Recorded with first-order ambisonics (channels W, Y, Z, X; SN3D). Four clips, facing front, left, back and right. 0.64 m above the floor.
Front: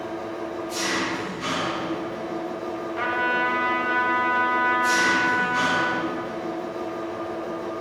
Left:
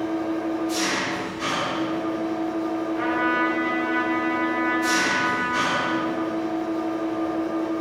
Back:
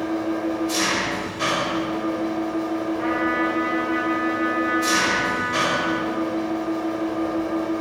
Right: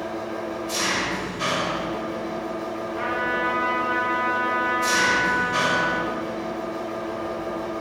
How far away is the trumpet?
About 2.5 m.